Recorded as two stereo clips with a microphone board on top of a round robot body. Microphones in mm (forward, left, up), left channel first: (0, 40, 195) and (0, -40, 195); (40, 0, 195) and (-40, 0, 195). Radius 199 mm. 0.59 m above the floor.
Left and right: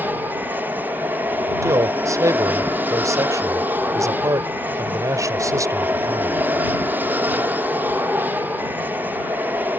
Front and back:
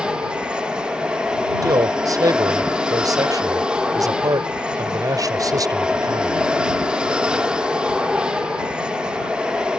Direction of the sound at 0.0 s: 115° right.